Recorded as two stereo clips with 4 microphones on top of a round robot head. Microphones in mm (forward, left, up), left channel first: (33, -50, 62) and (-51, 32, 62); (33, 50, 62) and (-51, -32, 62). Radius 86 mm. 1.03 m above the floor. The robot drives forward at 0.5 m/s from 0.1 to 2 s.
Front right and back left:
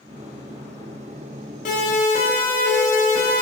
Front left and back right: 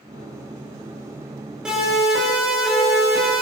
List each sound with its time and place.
1.6 s a siren: 50° right, 7.5 m; by 3.4 s 55° right, 9.5 m